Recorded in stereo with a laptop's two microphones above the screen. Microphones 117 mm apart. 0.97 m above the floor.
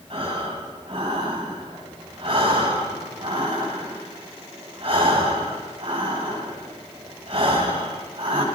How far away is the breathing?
About 7.5 m.